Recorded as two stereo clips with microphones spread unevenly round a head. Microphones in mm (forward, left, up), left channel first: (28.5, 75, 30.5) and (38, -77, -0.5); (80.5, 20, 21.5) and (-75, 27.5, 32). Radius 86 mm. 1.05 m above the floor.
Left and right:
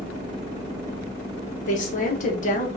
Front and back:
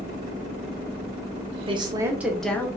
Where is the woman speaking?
130° left, 0.8 m; by 2.7 s 60° left, 0.7 m.